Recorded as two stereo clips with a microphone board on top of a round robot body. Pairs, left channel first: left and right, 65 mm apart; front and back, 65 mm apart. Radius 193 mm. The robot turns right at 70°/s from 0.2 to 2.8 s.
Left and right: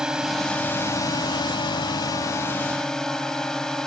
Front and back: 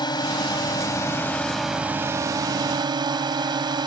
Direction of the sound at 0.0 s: 10° right.